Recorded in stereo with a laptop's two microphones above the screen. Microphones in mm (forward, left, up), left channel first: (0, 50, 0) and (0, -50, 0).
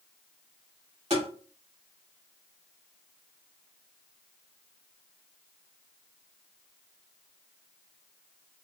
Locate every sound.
1.1 s tapping: 80° right, 1.7 m